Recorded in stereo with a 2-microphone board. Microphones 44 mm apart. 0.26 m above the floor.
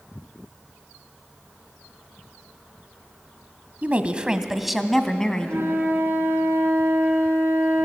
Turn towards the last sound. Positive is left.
turn(degrees=-60)  # may be behind; listen again after turning